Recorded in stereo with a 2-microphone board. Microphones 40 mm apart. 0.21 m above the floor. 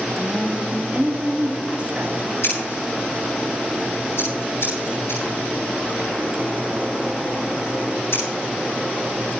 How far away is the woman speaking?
About 3 m.